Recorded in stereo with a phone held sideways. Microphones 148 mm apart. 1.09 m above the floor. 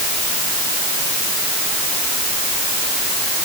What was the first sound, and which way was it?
Only background noise.